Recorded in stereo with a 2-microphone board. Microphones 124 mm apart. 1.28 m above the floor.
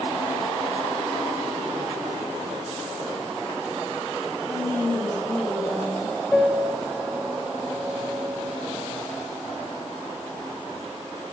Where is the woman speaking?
20° left (ahead or behind), 3 m.